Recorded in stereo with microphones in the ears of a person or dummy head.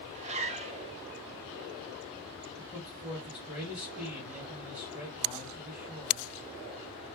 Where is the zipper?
35° right (ahead or behind), 0.5 m.